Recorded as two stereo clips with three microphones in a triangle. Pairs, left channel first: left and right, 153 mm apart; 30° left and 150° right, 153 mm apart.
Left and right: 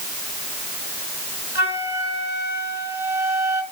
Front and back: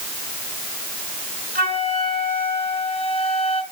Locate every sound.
1.6 s a flute: 15° right, 4 m